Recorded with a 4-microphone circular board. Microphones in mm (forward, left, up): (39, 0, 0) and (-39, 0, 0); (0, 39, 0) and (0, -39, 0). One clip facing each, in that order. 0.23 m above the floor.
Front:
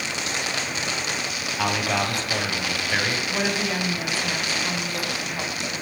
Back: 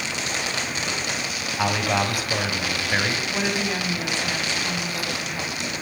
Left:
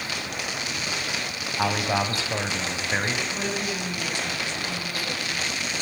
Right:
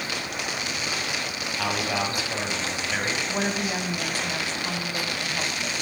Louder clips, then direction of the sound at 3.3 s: Even, right 2 dB; 80° right.